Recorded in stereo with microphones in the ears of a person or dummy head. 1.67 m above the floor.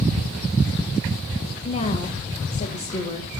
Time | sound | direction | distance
1.6 | a woman speaking | 35° left (ahead or behind) | 2 m